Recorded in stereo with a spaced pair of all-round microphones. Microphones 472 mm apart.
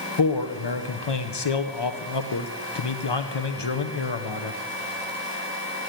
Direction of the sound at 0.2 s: 65° left (ahead or behind).